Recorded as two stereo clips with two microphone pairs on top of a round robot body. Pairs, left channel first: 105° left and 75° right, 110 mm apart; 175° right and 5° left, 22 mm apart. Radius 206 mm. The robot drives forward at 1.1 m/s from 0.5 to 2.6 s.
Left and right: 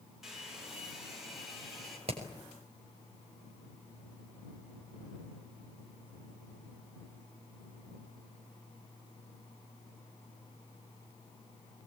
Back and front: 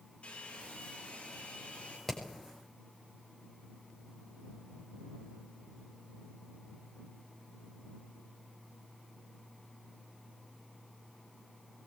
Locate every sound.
0.2 s a hair dryer: 165° right, 9 m
2.1 s hammering: 105° right, 6.5 m